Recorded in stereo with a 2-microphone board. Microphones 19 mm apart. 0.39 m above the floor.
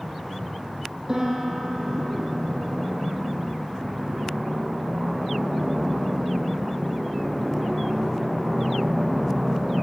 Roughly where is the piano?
Right.